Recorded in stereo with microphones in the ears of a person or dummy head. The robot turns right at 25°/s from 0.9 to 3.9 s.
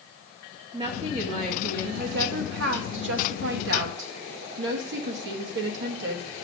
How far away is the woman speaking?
About 2 m.